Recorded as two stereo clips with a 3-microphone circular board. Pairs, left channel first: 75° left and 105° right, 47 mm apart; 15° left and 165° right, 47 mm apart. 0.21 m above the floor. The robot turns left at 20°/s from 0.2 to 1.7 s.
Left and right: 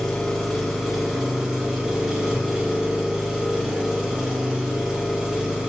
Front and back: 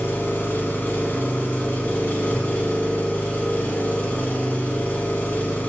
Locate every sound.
0.0 s an engine running: straight ahead, 0.8 m; by 5.7 s 30° right, 0.8 m